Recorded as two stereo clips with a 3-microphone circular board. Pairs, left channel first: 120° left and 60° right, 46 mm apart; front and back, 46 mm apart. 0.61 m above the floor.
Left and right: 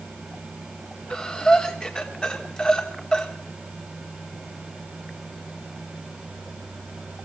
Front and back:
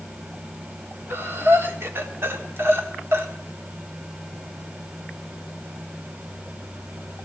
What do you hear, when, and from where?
1.1 s breathing: 170° right, 1.5 m